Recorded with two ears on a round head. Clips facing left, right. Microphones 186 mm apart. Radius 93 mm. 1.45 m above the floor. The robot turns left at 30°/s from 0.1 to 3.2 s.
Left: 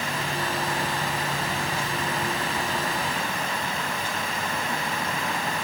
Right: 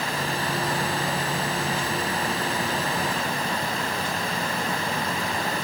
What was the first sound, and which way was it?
Only background noise.